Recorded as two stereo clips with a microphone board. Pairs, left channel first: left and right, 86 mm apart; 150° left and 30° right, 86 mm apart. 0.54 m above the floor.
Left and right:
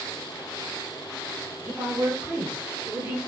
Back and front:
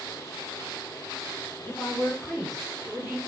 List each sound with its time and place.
1.6 s a woman speaking: 155° right, 1.5 m; by 3.2 s 25° right, 1.1 m